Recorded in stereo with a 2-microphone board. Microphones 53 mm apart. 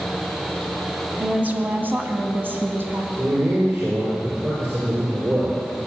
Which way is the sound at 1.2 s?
25° right (ahead or behind).